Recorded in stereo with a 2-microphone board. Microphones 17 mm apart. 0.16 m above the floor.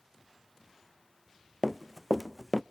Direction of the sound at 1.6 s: 5° right (ahead or behind).